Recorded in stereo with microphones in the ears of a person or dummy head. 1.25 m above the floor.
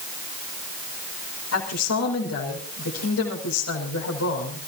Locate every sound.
1.5 s a woman speaking: 75° left (ahead or behind), 5.5 m